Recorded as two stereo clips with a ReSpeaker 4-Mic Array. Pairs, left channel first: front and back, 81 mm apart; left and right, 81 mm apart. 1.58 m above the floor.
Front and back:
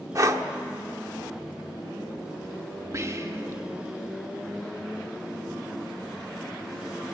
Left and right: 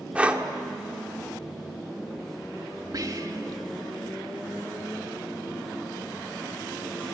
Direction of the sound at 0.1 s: 160° right.